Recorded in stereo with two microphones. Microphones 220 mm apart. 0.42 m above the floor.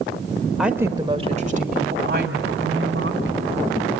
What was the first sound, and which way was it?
A woman speaking, centre (ahead or behind).